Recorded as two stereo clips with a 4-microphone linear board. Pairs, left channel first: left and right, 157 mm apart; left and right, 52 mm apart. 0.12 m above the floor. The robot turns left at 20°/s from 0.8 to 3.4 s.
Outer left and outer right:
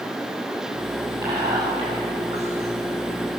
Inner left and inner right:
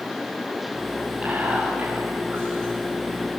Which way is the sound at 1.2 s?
20° right (ahead or behind).